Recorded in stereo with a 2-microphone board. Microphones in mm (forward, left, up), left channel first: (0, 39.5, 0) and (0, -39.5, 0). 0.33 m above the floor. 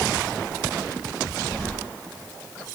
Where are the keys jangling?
15° left (ahead or behind), 1.1 m.